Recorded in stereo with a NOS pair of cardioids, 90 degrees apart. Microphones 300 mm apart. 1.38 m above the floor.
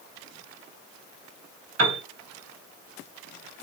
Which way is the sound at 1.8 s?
55° right.